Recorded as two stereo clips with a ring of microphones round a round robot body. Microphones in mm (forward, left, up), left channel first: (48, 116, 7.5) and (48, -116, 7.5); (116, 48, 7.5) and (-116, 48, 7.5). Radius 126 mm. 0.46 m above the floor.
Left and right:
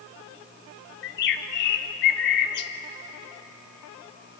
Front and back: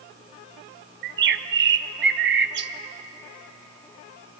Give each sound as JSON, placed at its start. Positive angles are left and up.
{"t": 1.0, "sound": "a bird", "azimuth_deg": 140, "distance_m": 0.7}